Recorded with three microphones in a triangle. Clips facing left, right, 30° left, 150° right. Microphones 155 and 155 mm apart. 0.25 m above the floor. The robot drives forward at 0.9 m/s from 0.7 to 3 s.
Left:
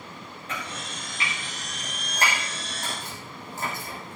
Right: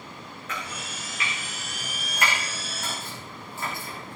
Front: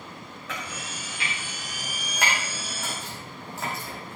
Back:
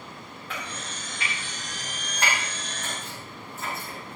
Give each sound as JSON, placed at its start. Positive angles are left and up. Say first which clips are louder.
{"t": 0.5, "sound": "chopping", "louder": "left 1 dB, even", "azimuth_deg": 35, "distance_m": 8.5}